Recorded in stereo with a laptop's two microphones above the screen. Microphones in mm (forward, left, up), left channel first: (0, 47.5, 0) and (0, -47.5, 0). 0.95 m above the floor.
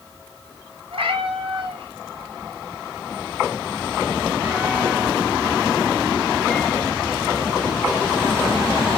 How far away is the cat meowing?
About 2.0 m.